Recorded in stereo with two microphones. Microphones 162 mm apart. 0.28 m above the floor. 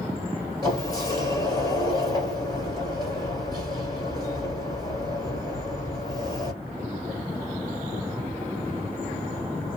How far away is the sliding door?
About 1.4 m.